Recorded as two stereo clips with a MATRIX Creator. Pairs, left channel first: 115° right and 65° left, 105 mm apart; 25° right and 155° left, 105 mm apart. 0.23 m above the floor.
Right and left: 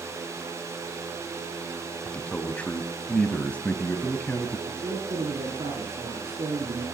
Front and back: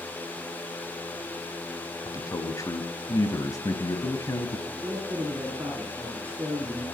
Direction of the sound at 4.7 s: 95° left.